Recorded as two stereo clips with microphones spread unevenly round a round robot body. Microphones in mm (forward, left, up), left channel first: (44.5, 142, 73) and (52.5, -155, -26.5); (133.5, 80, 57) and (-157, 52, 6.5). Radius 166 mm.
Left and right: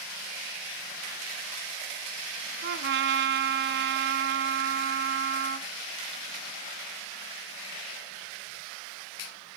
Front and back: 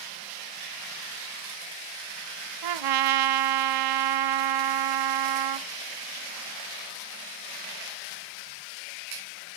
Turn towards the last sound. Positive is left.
turn(degrees=-150)